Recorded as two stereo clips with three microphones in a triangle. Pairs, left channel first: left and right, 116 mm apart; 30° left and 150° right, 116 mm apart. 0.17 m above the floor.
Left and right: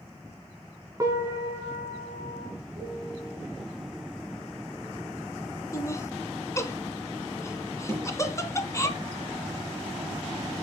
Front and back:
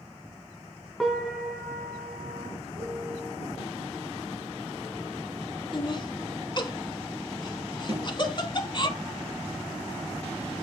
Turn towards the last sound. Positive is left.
turn(degrees=-135)